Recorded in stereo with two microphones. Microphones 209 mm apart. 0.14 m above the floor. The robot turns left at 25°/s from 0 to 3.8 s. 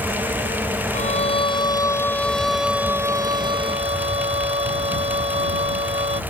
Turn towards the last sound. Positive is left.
turn(degrees=-30)